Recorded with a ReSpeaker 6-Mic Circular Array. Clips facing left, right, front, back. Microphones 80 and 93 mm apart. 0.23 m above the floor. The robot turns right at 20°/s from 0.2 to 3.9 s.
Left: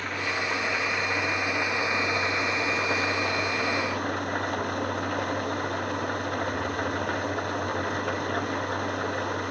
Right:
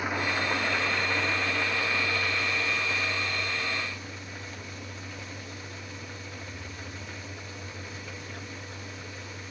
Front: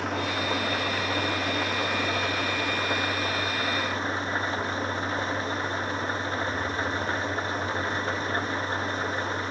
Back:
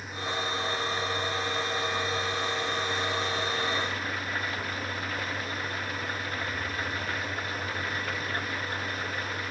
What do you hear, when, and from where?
0.0 s an engine running: 15° right; by 9.5 s 60° left